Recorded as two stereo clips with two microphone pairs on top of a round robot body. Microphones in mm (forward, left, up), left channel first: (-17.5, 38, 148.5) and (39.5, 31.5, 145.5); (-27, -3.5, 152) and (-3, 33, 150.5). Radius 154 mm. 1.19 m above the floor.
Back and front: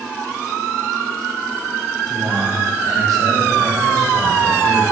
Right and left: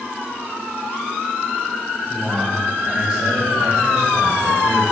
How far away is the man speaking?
About 3 m.